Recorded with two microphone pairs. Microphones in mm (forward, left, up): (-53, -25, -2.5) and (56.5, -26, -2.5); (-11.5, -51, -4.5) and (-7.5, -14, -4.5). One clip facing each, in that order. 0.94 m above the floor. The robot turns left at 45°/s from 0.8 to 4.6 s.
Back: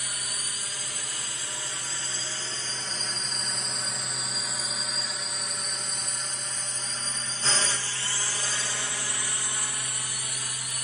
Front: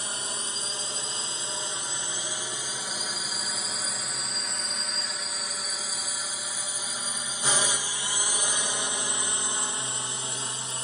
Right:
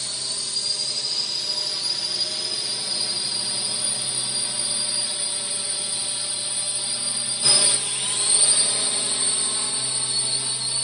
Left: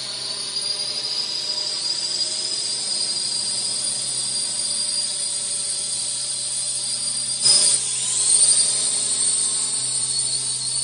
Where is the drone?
5° left; by 10.8 s 45° right.